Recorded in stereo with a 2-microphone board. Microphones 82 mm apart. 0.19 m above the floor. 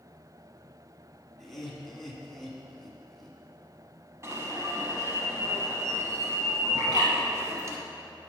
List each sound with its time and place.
1.4 s laughter: centre (ahead or behind), 1.7 m
4.2 s an alarm: 35° right (ahead or behind), 1.1 m
6.8 s a bird: 50° right (ahead or behind), 3 m